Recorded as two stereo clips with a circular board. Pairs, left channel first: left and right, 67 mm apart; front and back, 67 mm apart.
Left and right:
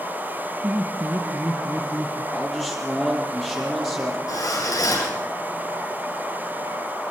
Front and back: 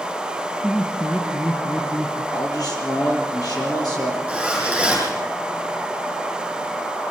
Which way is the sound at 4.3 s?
105° left.